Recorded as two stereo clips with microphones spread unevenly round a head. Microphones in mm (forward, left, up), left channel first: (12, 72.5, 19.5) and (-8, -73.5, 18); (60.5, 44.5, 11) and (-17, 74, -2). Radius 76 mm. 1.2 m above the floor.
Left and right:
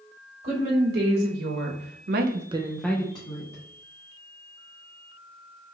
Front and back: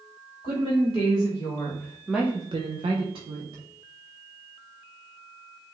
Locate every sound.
0.4 s a woman speaking: 80° right, 2.5 m; by 3.6 s 135° left, 1.4 m